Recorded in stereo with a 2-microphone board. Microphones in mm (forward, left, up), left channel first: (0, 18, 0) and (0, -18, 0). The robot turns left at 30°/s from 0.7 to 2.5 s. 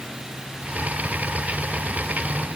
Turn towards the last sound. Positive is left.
No sound to turn to.